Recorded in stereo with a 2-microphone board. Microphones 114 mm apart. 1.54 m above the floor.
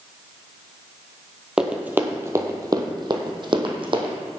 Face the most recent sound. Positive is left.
turn(degrees=-55)  # may be behind; listen again after turning